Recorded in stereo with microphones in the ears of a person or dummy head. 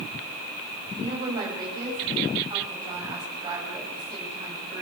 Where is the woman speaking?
30° right (ahead or behind), 8 m; by 4.8 s 25° right (ahead or behind), 10 m.